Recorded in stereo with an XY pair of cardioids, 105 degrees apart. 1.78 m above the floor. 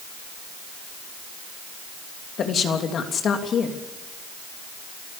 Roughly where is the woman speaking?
Ahead left.